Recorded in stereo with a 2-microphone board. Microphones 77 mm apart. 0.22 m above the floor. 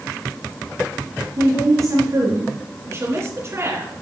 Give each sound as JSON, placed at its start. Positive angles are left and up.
{"t": 1.4, "sound": "a woman speaking", "side_deg": -45, "distance_m": 3.5}
{"t": 2.9, "sound": "a woman speaking", "side_deg": -40, "distance_m": 3.0}